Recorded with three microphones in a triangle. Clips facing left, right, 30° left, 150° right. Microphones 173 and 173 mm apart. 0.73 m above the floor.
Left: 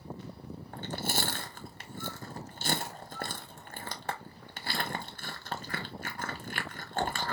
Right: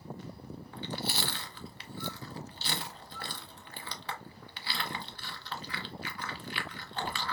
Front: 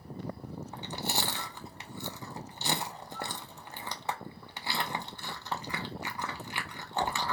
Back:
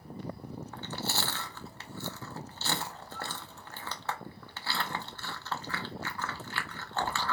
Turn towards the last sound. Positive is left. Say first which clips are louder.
# left 2 dB, front 1 dB
turn(degrees=95)